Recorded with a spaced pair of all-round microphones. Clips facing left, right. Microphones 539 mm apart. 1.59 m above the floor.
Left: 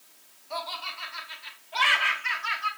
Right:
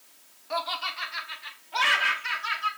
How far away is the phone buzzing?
No phone buzzing in this recording.